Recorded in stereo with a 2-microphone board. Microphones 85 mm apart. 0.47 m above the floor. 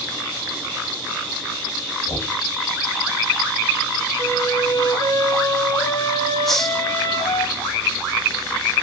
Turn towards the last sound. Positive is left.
turn(degrees=5)  # may be behind; listen again after turning